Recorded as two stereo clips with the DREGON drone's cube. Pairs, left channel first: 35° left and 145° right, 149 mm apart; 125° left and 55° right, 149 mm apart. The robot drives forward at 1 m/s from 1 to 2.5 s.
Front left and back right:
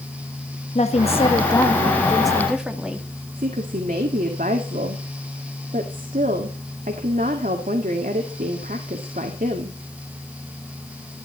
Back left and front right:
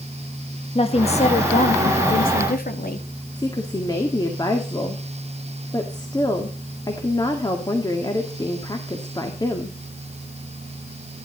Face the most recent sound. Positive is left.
turn(degrees=-170)